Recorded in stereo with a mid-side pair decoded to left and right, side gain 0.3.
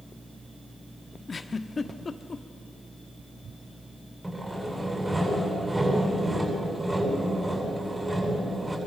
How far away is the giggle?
About 1.1 m.